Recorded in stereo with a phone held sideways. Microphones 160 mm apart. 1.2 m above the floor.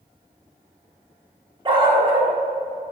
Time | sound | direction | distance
1.6 | a dog barking | 30° right (ahead or behind) | 0.9 m